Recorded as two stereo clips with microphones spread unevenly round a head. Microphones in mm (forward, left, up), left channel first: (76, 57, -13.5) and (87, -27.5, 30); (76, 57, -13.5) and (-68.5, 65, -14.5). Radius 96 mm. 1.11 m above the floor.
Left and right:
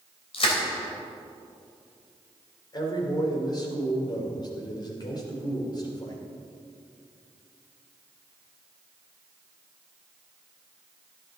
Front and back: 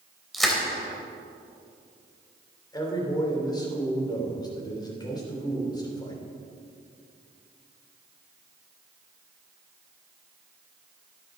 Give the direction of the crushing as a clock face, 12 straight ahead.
9 o'clock.